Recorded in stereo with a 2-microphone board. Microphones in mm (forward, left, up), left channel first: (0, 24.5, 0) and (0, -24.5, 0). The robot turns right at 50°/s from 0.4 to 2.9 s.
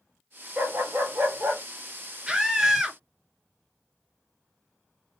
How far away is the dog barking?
About 0.7 m.